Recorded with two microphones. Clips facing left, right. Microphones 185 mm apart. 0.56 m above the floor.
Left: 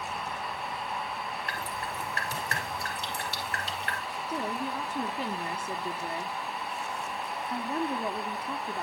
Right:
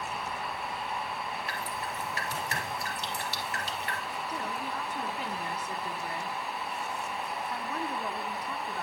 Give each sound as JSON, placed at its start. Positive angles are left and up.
{"t": 1.5, "sound": "dripping", "side_deg": 55, "distance_m": 2.0}
{"t": 4.3, "sound": "a woman speaking", "side_deg": 25, "distance_m": 0.9}